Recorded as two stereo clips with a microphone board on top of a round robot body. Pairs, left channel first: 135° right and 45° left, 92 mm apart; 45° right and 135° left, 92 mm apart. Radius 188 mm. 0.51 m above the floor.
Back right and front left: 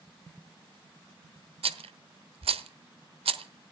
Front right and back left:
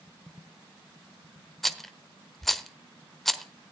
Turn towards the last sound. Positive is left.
turn(degrees=45)